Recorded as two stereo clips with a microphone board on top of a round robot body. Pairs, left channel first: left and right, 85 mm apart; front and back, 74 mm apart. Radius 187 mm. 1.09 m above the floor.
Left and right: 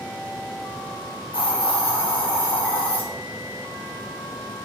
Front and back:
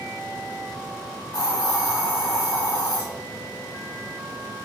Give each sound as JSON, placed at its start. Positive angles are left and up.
{"t": 1.3, "sound": "a hiss", "azimuth_deg": 65, "distance_m": 1.7}